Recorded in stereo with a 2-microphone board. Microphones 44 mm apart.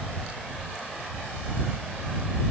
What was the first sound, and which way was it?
Only background noise.